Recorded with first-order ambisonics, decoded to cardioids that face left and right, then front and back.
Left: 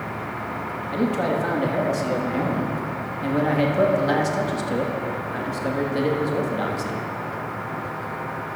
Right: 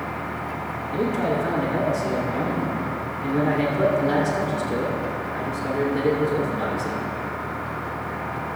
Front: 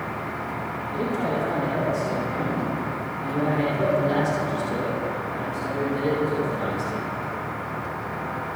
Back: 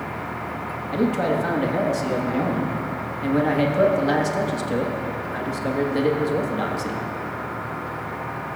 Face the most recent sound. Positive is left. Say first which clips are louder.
# even, back 5 dB
turn(degrees=140)